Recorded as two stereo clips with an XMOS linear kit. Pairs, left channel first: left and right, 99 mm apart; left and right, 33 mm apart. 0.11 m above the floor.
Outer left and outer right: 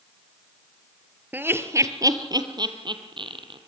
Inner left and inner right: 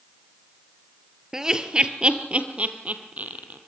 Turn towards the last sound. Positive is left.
turn(degrees=-60)  # may be behind; listen again after turning